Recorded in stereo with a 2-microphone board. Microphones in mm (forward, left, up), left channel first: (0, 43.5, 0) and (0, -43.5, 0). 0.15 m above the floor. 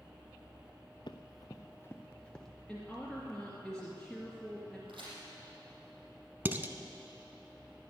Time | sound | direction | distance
1.1 | running footsteps | 65° left (ahead or behind) | 0.9 m
2.7 | a woman speaking | 5° left (ahead or behind) | 2 m
4.9 | a crack | 75° right (ahead or behind) | 6.5 m
6.5 | dishes clattering | 25° right (ahead or behind) | 0.9 m